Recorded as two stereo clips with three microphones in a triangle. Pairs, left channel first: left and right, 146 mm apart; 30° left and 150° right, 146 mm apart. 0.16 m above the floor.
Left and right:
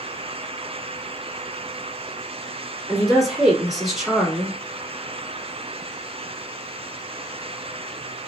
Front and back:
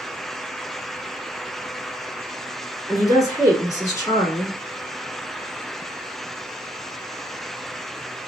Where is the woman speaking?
5° right, 1.5 m.